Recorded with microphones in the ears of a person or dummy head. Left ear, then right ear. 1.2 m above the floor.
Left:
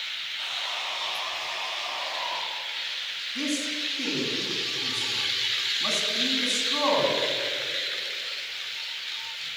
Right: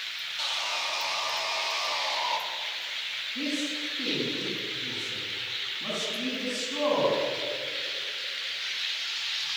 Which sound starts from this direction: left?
A man speaking, at 3.4 s.